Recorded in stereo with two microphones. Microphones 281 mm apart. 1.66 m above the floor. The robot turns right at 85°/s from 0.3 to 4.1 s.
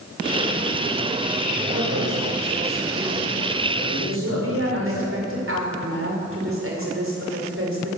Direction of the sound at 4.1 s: 45° right (ahead or behind).